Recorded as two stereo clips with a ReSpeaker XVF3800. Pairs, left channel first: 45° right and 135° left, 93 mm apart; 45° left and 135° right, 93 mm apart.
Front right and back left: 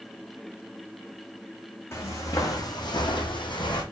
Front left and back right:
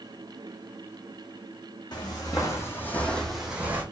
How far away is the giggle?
I don't hear a giggle.